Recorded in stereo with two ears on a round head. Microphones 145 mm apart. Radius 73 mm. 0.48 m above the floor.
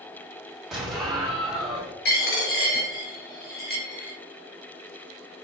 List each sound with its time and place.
0.7 s an explosion: centre (ahead or behind), 1.3 m
2.0 s a dropped coin: 60° left (ahead or behind), 1.5 m